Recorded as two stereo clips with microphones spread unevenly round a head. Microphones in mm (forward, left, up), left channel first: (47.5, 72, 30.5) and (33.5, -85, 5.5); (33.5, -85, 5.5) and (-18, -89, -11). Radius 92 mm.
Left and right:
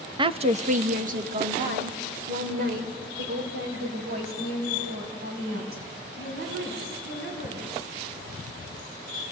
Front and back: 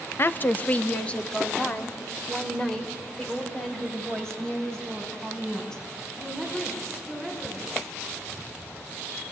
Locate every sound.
0.2 s a woman speaking: 45° right, 0.8 m; by 7.9 s 75° right, 9.5 m